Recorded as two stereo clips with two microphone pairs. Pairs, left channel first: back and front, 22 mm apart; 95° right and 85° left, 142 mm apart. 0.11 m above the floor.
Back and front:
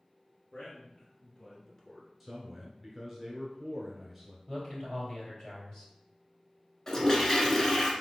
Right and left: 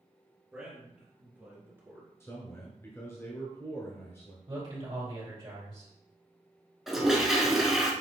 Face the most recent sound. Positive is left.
turn(degrees=165)